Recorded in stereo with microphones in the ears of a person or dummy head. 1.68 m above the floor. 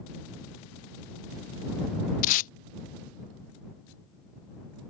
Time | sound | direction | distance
2.2 | tape being pulled | 50° left (ahead or behind) | ?